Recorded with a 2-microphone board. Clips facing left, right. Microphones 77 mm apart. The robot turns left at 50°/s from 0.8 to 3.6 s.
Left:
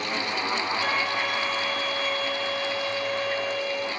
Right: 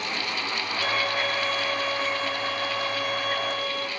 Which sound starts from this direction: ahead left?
A violin, at 0.8 s.